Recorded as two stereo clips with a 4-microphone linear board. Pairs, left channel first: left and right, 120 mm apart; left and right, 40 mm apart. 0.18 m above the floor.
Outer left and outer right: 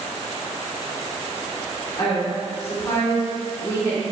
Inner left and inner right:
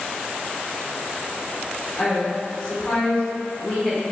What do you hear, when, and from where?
2.0 s a woman speaking: 25° left (ahead or behind), 1.3 m